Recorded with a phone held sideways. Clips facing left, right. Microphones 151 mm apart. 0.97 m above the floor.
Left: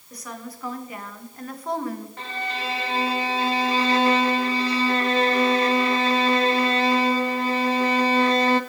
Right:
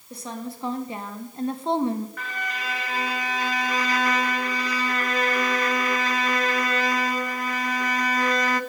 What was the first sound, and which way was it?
A woman speaking, 25° right (ahead or behind).